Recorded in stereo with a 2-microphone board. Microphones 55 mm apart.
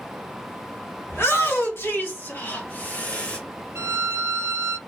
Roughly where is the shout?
Left.